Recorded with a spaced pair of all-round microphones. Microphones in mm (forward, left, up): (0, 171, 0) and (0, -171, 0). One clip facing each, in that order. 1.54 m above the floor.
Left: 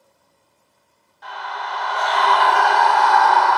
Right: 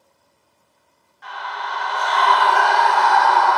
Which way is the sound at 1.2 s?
50° left (ahead or behind).